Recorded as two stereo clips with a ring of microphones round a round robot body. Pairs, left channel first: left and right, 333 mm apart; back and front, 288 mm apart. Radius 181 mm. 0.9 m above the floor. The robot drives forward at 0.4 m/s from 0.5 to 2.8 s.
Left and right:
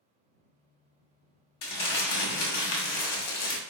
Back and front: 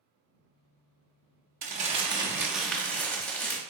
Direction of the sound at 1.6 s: 65° left.